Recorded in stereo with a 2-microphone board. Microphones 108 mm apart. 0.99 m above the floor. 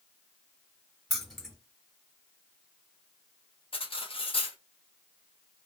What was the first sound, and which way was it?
Keys jangling, centre (ahead or behind).